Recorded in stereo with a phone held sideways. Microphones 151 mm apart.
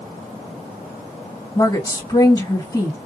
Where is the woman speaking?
25° left (ahead or behind), 1.7 m.